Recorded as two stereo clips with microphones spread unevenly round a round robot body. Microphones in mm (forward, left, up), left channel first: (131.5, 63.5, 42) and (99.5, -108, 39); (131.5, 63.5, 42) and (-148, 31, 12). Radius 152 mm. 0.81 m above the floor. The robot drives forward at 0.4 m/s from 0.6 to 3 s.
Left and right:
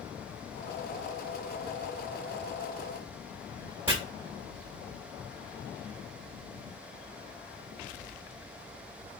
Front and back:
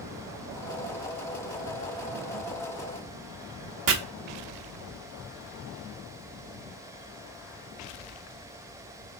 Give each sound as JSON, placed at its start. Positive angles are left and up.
{"t": 3.9, "sound": "chopping", "azimuth_deg": 180, "distance_m": 0.9}